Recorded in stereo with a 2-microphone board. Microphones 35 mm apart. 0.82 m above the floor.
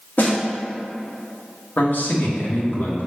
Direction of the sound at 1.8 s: 65° left (ahead or behind).